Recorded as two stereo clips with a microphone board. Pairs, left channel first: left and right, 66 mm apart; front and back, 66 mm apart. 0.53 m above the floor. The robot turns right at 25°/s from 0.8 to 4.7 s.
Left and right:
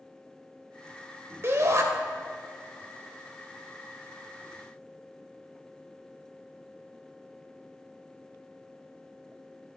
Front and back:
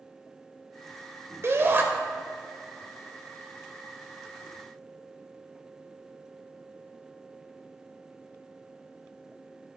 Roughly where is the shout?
Behind right.